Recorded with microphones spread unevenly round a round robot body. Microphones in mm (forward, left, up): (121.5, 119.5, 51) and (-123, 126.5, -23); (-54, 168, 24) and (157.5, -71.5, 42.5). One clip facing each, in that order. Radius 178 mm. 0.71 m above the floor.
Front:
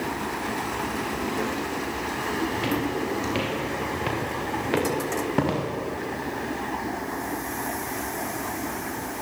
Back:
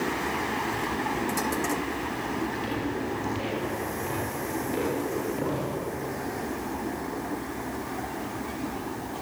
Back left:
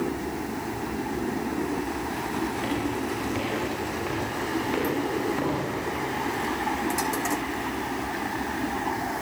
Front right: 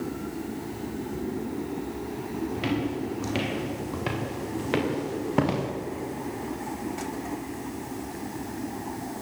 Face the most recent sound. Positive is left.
turn(degrees=-35)